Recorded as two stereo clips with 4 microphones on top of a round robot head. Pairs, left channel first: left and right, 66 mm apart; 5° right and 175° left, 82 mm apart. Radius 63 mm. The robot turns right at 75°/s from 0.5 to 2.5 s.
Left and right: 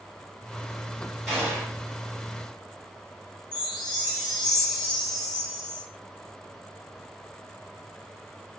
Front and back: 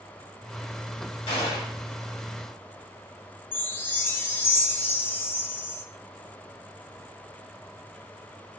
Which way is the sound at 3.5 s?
60° left.